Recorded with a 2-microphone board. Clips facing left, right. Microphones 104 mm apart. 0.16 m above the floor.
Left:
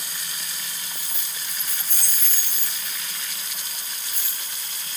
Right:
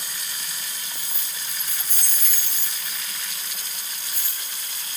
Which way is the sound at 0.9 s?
5° right (ahead or behind).